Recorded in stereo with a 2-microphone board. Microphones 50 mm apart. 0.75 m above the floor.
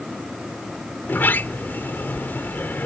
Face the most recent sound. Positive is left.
turn(degrees=45)  # may be behind; listen again after turning